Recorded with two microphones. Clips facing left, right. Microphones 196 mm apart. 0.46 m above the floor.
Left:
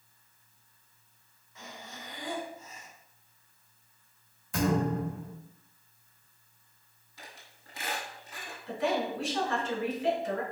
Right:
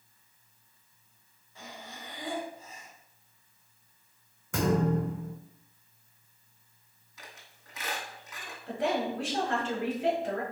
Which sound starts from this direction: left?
A squeak, at 7.2 s.